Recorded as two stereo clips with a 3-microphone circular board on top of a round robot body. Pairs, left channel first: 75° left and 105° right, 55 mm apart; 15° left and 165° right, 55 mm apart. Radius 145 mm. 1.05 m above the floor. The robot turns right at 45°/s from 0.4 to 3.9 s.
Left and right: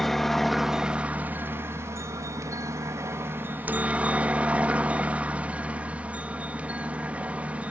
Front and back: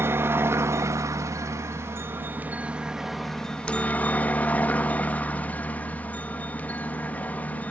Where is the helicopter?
160° left; by 7.7 s 45° right.